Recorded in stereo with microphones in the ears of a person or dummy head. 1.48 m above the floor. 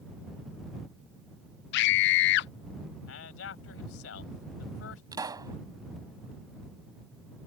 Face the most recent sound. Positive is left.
turn(degrees=-25)  # may be behind; listen again after turning